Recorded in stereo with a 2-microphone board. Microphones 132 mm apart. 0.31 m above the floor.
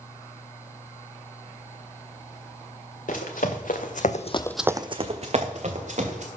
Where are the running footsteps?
80° left, 2.5 m; by 6.3 s 65° right (ahead or behind), 3 m.